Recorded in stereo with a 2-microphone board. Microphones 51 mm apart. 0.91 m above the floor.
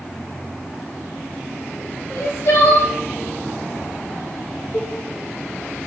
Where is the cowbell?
40° left (ahead or behind), 0.8 m.